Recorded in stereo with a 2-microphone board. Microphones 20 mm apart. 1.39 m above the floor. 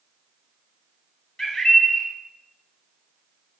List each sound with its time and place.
1.4 s a bird: 35° left (ahead or behind), 1.5 m